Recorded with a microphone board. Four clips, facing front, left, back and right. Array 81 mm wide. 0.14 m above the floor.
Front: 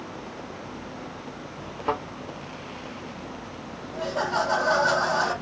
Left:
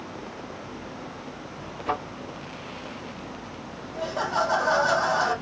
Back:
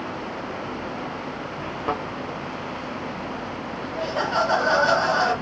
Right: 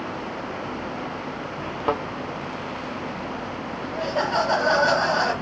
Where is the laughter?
115° right, 2 m.